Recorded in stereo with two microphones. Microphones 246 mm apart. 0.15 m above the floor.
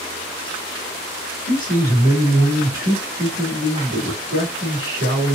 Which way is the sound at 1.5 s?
15° left (ahead or behind).